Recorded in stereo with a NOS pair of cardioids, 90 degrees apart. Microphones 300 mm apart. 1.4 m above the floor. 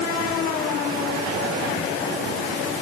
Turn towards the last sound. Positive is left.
No sound to turn to.